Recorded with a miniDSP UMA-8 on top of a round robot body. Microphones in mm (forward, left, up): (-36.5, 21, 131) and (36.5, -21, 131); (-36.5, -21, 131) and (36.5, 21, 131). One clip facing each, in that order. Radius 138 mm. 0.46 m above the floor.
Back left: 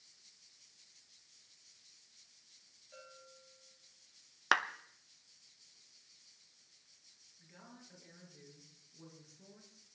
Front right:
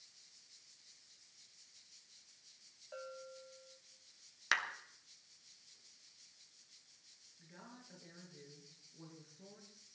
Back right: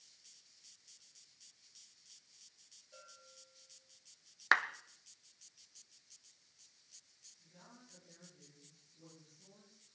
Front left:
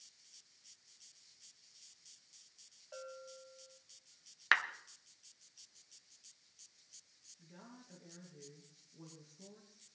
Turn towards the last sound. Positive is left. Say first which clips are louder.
# front right 1 dB, front left 4 dB
turn(degrees=45)